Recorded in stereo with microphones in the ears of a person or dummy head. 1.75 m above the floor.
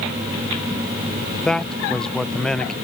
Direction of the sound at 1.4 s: 5° left (ahead or behind).